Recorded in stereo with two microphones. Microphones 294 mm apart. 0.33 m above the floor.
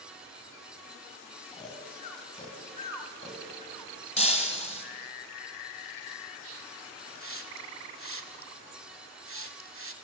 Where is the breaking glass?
20° left (ahead or behind), 1.2 m.